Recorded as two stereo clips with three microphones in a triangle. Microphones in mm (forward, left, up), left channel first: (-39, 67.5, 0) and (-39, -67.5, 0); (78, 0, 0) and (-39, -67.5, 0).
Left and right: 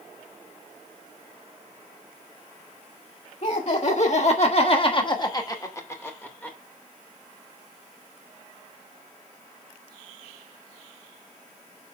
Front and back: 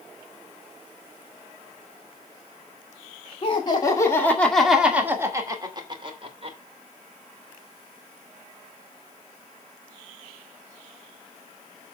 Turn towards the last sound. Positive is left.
turn(degrees=170)